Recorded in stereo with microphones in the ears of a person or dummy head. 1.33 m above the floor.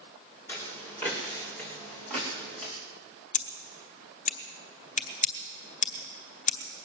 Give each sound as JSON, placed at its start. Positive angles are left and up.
{"t": 0.5, "sound": "footsteps", "side_deg": 10, "distance_m": 5.5}
{"t": 3.3, "sound": "scissors", "side_deg": 45, "distance_m": 0.9}